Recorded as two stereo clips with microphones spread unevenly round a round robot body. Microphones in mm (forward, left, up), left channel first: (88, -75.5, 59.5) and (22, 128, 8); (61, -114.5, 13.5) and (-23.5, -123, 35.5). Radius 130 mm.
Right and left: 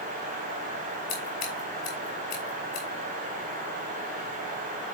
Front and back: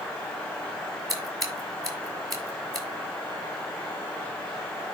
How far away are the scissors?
About 5.5 m.